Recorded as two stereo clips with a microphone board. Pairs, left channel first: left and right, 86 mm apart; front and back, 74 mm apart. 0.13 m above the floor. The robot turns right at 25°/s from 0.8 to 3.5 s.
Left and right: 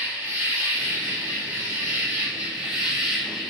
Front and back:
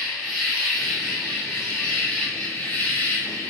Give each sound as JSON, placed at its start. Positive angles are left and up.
{"t": 0.0, "sound": "an insect", "azimuth_deg": -85, "distance_m": 1.3}